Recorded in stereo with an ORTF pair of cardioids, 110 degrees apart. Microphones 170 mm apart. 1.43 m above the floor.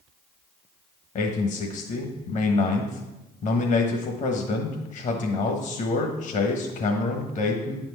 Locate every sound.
1.1 s a man speaking: 50° left, 1.3 m